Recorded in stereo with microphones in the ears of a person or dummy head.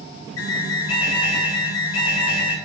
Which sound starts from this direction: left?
An alarm, at 0.4 s.